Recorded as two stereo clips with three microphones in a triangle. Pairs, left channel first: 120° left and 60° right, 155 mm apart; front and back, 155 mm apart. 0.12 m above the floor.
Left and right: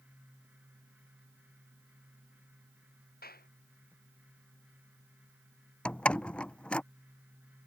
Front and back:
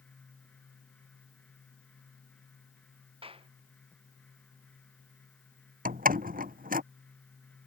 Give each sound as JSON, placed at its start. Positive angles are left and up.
{"t": 3.2, "sound": "a clap", "azimuth_deg": 130}
{"t": 5.8, "sound": "a door slam", "azimuth_deg": -160}